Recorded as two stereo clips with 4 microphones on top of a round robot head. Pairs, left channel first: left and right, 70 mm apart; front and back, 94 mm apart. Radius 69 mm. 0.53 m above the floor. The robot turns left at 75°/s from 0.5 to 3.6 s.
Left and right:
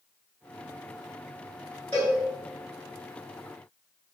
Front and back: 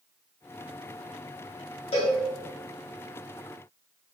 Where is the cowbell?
15° left, 1.7 m; by 2.2 s 5° right, 1.7 m.